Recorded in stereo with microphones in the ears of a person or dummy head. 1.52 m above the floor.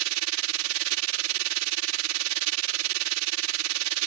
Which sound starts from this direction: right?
A machine running, at 0.0 s.